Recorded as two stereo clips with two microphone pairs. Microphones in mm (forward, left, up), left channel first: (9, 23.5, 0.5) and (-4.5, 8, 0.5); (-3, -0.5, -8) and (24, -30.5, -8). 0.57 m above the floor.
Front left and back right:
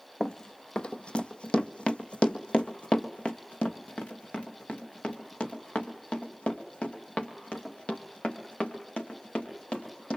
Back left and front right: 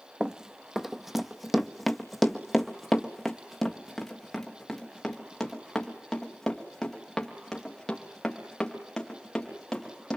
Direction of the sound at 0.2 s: 15° left.